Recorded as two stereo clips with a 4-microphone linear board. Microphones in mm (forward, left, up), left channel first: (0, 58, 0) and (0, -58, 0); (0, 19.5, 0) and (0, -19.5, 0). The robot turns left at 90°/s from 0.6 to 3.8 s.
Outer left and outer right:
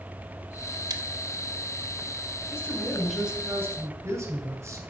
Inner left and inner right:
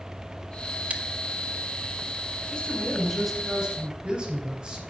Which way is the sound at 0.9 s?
35° right (ahead or behind).